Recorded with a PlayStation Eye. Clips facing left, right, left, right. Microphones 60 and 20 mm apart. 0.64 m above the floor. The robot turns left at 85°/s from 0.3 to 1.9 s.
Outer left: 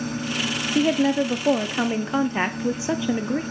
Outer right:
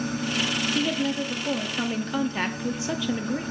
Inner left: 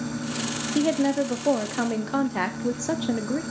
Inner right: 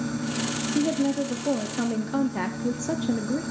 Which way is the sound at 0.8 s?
130° left.